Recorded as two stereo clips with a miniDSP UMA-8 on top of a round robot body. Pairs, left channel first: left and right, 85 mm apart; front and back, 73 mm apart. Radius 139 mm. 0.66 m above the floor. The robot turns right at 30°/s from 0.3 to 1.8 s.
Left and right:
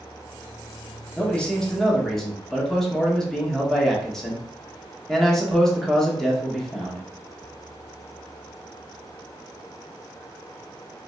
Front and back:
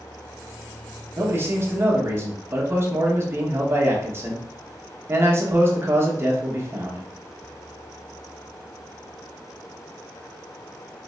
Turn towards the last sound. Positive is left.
turn(degrees=175)